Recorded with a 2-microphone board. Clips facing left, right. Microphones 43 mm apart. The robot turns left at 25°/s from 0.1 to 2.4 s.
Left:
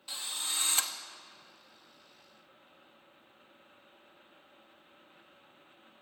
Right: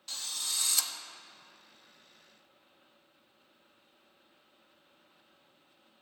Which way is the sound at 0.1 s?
15° left (ahead or behind).